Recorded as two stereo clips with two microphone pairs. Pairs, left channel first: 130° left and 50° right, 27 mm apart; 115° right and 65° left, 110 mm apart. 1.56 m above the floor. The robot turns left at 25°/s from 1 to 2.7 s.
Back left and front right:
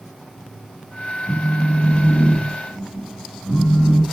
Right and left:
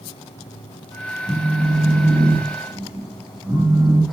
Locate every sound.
1.3 s a phone buzzing: 140° left, 1.1 m; by 4.0 s 105° left, 1.1 m